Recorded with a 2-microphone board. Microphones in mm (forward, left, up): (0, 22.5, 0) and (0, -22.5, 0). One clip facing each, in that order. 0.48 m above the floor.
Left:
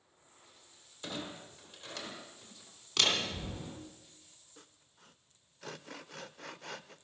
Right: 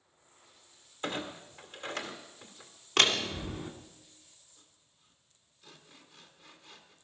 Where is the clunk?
40° right (ahead or behind), 2.0 m.